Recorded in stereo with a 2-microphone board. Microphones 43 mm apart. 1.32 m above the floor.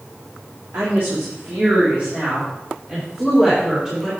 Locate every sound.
0.7 s a woman speaking: 55° right (ahead or behind), 2.5 m; by 4.1 s 10° right (ahead or behind), 4 m